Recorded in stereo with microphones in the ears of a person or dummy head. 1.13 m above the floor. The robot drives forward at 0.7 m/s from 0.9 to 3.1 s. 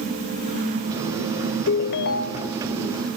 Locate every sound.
1.7 s a ringtone: 70° left (ahead or behind), 1.0 m; by 2.6 s 40° left (ahead or behind), 1.3 m